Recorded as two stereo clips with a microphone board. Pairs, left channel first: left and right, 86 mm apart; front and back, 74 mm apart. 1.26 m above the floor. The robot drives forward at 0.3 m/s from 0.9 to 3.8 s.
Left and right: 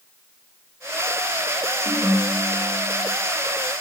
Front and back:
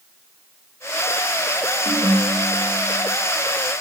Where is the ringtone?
160° right, 2.5 m; by 3.2 s 165° right, 3 m.